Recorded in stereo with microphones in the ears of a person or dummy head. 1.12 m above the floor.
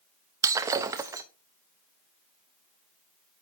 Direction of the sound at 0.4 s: 20° right (ahead or behind).